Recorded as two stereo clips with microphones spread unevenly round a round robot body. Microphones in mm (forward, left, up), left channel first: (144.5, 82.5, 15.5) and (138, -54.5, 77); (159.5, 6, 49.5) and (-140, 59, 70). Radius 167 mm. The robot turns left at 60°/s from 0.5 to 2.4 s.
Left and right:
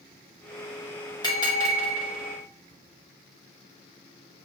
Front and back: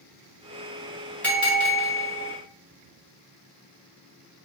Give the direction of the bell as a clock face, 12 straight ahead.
10 o'clock.